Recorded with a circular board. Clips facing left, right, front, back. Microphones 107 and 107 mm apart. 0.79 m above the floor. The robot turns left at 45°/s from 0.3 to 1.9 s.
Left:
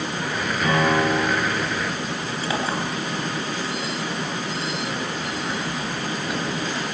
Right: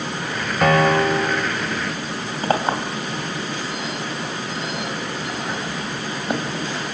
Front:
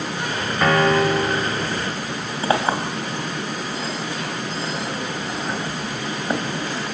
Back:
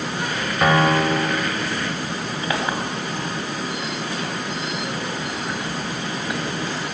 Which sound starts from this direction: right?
A piano, at 0.6 s.